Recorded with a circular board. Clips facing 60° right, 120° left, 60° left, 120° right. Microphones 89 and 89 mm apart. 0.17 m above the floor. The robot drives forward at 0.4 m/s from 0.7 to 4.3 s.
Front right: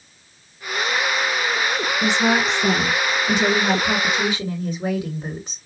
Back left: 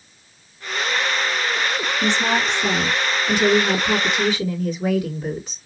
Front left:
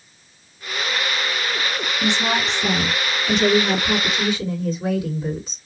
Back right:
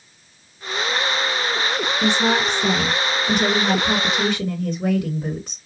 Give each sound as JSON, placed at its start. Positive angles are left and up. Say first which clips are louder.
{"t": 2.0, "sound": "a woman speaking", "louder": "front right 2 dB, back right 2 dB", "azimuth_deg": -100, "distance_m": 1.9}